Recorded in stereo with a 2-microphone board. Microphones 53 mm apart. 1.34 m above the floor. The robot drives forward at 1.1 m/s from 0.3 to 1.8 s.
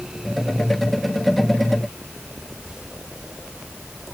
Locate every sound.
Only background noise.